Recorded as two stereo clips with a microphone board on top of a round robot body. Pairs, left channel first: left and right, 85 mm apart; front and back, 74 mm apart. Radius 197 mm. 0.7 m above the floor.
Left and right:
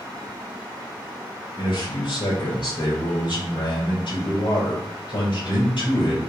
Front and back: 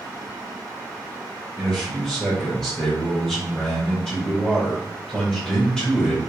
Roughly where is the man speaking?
Left.